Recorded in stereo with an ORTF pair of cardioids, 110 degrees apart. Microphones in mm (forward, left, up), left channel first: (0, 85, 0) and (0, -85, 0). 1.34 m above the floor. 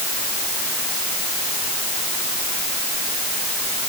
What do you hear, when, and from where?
Only background noise.